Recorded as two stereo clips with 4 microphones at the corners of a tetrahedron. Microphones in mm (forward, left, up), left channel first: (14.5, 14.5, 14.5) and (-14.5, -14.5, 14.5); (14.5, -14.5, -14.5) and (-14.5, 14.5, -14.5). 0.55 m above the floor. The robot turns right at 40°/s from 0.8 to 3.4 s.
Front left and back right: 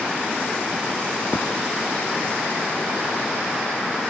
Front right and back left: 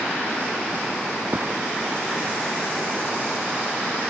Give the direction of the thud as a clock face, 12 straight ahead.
9 o'clock.